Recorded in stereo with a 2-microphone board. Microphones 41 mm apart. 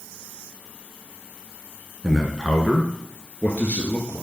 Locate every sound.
2.0 s a man speaking: 5° right (ahead or behind), 1.2 m; by 4.2 s 40° left (ahead or behind), 2 m